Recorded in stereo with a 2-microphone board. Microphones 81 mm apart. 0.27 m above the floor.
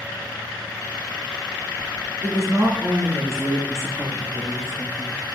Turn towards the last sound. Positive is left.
turn(degrees=-45)  # may be behind; listen again after turning